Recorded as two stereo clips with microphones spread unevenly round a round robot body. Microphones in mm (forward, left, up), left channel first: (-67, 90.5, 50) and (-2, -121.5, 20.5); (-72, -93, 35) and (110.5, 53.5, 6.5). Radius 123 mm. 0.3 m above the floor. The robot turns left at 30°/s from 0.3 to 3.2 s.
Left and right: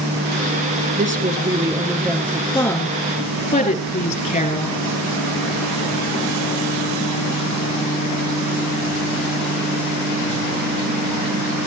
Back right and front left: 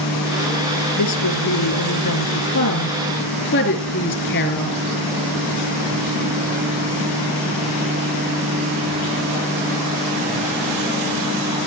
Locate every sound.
1.0 s a woman speaking: 125° right, 4.5 m; by 4.8 s 170° left, 4.5 m